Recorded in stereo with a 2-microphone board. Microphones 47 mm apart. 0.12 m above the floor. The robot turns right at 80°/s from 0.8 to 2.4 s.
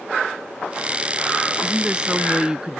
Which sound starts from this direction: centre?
A woman speaking, at 1.6 s.